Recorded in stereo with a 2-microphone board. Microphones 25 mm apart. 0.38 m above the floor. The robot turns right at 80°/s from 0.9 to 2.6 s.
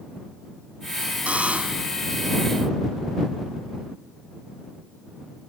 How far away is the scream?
No scream in this recording.